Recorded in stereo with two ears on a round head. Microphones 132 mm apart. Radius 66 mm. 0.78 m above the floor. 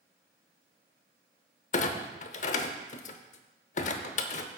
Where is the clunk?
50° left (ahead or behind), 0.8 m.